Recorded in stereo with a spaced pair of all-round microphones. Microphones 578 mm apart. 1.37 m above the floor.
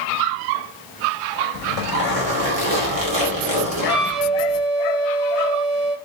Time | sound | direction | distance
1.5 | a zipper | 75° right (ahead or behind) | 3 m
3.9 | a flute | 70° right (ahead or behind) | 3.5 m